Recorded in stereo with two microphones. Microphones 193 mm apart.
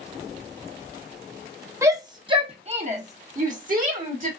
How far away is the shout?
About 0.9 m.